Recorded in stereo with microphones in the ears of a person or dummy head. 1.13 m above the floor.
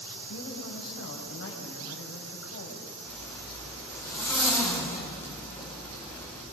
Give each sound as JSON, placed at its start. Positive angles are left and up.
{"t": 0.3, "sound": "a woman speaking", "side_deg": 80, "distance_m": 6.0}
{"t": 3.1, "sound": "a zipper", "side_deg": 10, "distance_m": 6.0}